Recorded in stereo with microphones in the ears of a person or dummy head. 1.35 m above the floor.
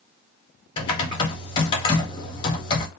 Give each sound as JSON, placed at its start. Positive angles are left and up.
{"t": 0.8, "sound": "typing on a keyboard", "side_deg": 25, "distance_m": 0.7}